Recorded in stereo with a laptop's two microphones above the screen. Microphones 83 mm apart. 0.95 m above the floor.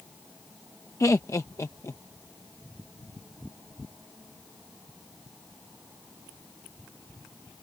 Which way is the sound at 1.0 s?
40° left (ahead or behind).